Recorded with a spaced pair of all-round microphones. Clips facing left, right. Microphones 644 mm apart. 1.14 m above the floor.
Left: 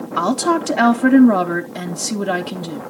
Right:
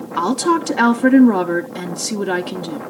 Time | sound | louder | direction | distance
0.2 | a woman speaking | right 1 dB | 10° left (ahead or behind) | 0.5 m